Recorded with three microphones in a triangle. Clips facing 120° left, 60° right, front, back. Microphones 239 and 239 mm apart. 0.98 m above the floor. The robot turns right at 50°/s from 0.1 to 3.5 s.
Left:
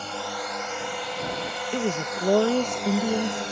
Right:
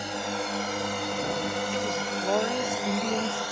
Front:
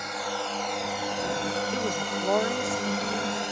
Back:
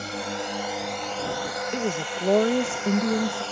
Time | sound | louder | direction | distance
0.0 | a drone | right 2 dB, back 2 dB | 130° right | ?
1.7 | a woman speaking | left 3 dB, back 2 dB | 115° left | ?